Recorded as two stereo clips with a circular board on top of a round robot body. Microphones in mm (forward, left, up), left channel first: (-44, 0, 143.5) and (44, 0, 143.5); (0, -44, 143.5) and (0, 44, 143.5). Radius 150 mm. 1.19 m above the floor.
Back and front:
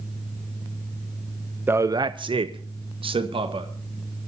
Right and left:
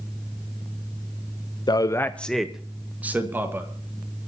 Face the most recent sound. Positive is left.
turn(degrees=20)